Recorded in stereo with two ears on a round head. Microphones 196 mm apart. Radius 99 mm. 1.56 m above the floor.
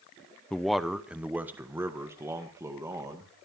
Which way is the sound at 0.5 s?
5° left (ahead or behind).